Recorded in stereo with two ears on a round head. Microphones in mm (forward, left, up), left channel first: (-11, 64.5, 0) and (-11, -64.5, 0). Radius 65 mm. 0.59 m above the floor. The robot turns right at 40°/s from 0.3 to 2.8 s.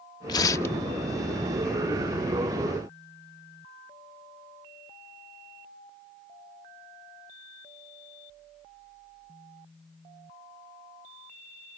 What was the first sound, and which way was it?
Tearing paper, 30° left (ahead or behind).